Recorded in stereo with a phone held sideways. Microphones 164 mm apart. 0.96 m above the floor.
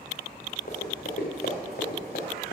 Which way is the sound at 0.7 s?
70° left (ahead or behind).